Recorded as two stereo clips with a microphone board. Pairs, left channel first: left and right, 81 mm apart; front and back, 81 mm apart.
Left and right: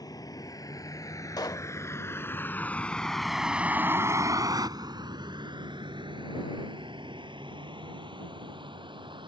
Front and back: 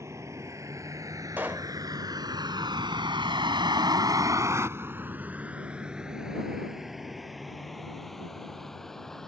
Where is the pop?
115° left.